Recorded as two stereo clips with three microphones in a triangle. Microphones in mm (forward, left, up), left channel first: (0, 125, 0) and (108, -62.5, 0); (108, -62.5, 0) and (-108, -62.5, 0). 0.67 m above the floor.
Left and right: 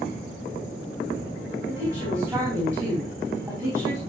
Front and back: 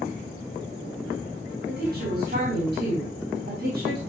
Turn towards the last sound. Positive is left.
turn(degrees=-145)